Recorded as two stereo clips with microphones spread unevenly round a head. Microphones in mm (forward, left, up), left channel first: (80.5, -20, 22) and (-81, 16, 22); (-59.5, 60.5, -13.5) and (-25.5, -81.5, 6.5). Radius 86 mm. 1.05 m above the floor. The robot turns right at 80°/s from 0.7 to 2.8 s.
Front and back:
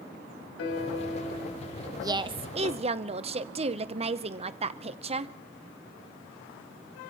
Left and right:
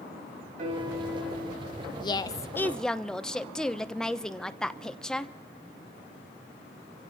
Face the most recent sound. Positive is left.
turn(degrees=175)